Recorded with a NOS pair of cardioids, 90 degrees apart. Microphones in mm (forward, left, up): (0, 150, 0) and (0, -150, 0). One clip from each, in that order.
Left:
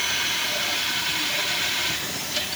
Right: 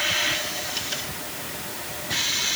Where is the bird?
No bird in this recording.